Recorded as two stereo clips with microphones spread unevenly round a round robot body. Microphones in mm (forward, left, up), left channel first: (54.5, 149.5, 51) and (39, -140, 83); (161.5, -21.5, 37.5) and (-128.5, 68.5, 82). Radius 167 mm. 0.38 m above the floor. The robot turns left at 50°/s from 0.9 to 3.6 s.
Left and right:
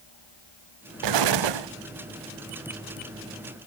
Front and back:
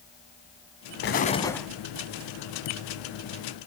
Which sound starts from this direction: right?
An explosion, at 1.0 s.